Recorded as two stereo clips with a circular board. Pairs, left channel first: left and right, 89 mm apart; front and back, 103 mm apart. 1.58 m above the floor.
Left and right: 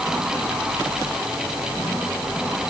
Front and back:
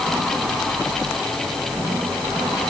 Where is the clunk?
No clunk in this recording.